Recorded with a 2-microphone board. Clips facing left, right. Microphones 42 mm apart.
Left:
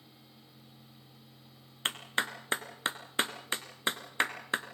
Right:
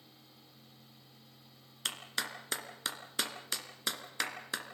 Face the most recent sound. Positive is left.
turn(degrees=30)  # may be behind; listen again after turning